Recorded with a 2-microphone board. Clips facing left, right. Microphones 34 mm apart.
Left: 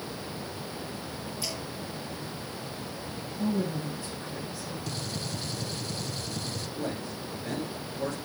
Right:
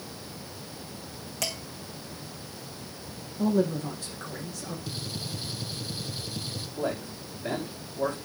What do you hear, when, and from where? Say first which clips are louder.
1.4 s dishes clattering: right 4 dB; 80° right, 5.5 m
3.4 s a man speaking: right 5 dB; 70° right (ahead or behind), 4.5 m
4.9 s a gunshot: left 1 dB; 20° right (ahead or behind), 2.5 m
6.8 s a man speaking: right 5 dB; 35° right (ahead or behind), 6.5 m